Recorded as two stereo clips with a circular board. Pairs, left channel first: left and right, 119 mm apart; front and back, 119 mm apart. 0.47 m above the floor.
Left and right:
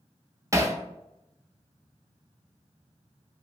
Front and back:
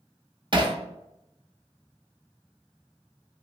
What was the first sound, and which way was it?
Hammering, 150° right.